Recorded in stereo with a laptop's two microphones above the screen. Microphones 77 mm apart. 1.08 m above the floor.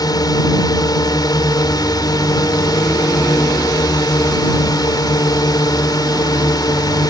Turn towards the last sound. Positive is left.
turn(degrees=55)  # may be behind; listen again after turning